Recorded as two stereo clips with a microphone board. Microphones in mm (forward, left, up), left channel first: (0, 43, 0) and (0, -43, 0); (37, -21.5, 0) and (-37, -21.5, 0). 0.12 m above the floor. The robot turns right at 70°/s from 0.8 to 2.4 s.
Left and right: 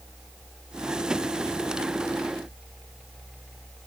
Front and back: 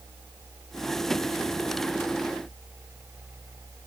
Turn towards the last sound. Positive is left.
No sound to turn to.